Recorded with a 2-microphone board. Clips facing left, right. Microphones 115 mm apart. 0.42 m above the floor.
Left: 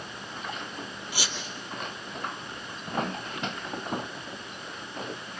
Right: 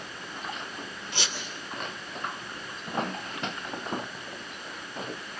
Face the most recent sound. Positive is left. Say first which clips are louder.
# even
turn(degrees=10)  # may be behind; listen again after turning